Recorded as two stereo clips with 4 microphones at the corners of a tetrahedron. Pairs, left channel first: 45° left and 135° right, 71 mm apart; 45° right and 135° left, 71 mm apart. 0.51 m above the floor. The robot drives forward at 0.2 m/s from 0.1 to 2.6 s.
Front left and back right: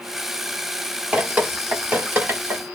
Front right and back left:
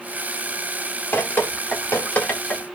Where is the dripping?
75° right, 1.0 m; by 2.6 s 105° right, 1.0 m.